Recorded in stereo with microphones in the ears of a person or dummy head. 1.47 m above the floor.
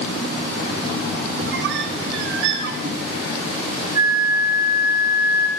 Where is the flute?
15° right (ahead or behind), 2 m.